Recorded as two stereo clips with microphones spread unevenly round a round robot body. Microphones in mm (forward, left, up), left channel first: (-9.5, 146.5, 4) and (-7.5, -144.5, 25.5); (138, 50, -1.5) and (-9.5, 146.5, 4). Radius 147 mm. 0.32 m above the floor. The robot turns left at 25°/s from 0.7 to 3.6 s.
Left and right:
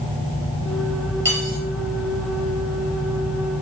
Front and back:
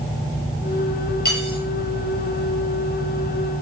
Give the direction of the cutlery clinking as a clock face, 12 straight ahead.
12 o'clock.